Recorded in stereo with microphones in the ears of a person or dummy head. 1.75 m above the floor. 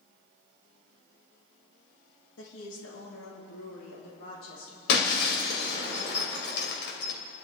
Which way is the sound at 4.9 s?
60° left (ahead or behind).